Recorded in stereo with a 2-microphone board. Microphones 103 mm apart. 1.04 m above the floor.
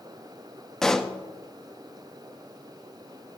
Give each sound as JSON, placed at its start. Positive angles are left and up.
{"t": 0.8, "sound": "a pop", "side_deg": 5, "distance_m": 0.5}